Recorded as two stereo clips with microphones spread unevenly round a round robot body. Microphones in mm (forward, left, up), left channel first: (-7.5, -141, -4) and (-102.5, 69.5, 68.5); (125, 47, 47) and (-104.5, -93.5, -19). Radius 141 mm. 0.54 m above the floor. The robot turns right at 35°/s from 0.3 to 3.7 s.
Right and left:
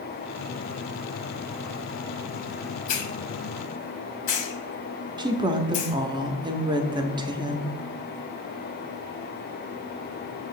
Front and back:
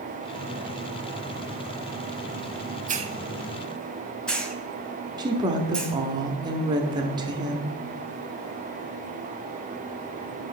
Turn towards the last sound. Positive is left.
turn(degrees=-155)